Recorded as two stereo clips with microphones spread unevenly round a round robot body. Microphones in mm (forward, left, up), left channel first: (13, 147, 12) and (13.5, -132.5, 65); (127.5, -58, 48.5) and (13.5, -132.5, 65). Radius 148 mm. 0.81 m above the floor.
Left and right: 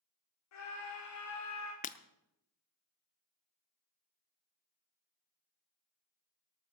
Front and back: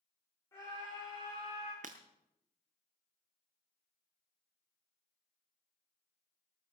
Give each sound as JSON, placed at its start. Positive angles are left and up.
{"t": 0.5, "sound": "a scream", "azimuth_deg": 105, "distance_m": 2.5}
{"t": 1.8, "sound": "breaking glass", "azimuth_deg": 160, "distance_m": 0.5}